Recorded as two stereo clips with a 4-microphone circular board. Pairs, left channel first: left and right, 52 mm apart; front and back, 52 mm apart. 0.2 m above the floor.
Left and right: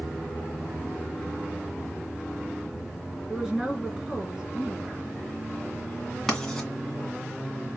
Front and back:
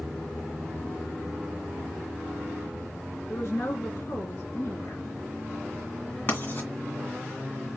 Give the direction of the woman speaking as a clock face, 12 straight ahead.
12 o'clock.